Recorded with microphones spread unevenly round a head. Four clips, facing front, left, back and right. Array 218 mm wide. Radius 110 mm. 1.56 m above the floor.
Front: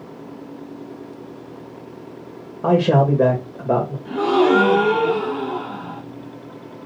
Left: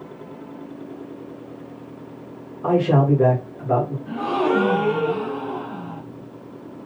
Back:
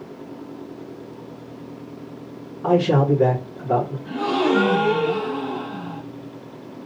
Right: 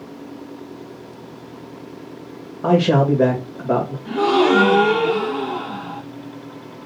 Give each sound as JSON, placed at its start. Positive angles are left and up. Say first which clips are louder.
{"t": 2.6, "sound": "a man speaking", "louder": "right 2 dB, front 2 dB", "azimuth_deg": -30, "distance_m": 3.0}
{"t": 4.0, "sound": "a gasp", "louder": "right 8 dB, front 6 dB", "azimuth_deg": -50, "distance_m": 4.0}